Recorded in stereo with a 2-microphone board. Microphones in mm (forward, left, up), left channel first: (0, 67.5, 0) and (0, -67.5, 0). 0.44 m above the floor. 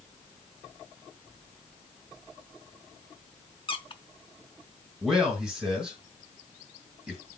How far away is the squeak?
About 0.8 m.